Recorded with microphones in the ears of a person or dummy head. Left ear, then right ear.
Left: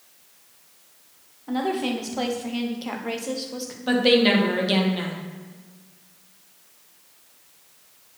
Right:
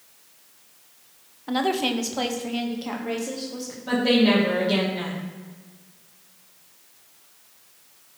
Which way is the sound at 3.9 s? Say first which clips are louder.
Left 2 dB; 45° left (ahead or behind).